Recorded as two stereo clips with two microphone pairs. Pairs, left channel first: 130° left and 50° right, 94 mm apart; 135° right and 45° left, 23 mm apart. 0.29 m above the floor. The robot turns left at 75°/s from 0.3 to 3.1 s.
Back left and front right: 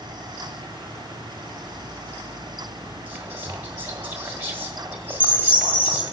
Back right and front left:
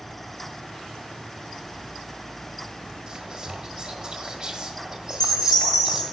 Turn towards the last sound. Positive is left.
turn(degrees=155)